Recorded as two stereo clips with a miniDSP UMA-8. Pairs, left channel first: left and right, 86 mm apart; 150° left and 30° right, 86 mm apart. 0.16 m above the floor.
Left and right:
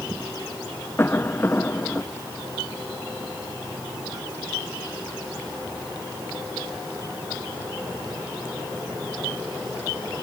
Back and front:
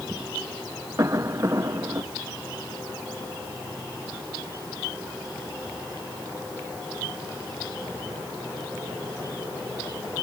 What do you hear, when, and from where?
1.0 s a cough: 25° left